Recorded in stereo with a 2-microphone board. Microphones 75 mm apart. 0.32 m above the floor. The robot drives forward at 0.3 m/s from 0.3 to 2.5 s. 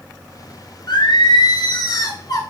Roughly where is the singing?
Left.